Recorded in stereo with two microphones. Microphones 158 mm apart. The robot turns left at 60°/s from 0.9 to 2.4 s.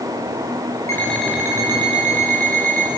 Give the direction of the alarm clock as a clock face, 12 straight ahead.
11 o'clock.